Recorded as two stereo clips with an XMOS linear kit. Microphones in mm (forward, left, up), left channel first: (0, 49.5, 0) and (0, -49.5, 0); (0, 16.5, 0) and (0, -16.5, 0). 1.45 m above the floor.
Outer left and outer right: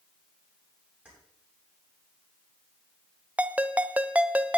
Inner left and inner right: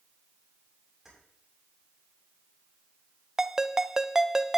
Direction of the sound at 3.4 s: 15° right (ahead or behind).